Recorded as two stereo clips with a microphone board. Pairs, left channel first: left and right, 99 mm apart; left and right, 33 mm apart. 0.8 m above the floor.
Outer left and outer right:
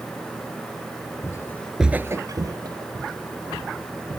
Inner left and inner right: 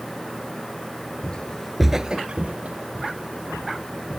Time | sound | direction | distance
1.2 | footsteps | 35° left (ahead or behind) | ?